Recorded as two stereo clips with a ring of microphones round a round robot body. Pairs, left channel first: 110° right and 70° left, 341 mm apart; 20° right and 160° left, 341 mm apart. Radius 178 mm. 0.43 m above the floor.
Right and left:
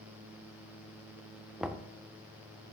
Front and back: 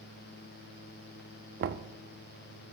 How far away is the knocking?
About 0.5 m.